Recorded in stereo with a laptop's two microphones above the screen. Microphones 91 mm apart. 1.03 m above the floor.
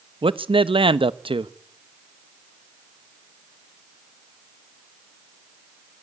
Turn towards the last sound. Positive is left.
turn(degrees=-70)  # may be behind; listen again after turning